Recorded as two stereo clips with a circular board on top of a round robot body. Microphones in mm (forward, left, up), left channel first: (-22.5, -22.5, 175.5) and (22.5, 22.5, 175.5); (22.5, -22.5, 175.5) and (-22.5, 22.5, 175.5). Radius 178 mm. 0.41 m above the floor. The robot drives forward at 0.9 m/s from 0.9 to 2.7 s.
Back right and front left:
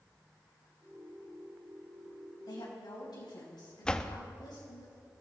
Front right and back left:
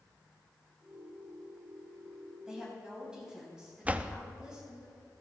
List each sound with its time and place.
2.5 s a woman speaking: 145° right, 3.5 m
3.9 s a door slam: 165° left, 0.9 m